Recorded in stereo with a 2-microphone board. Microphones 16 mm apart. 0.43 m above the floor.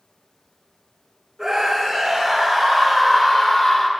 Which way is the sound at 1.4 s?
15° right (ahead or behind).